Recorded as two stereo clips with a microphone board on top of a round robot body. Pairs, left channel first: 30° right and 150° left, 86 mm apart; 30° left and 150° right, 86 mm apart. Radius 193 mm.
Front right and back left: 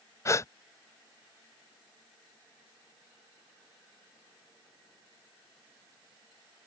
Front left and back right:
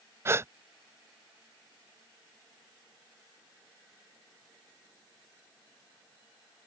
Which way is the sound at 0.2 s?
90° right.